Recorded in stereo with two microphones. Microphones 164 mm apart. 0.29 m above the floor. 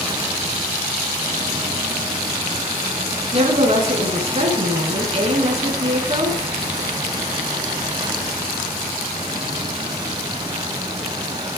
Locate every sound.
3.3 s a woman speaking: 40° right (ahead or behind), 3.5 m